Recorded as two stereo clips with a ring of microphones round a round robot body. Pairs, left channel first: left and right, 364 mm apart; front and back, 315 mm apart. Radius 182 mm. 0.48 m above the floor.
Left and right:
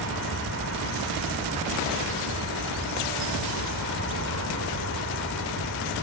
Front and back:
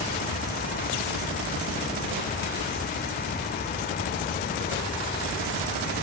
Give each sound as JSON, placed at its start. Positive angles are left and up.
{"t": 0.0, "sound": "an aircraft", "azimuth_deg": -65}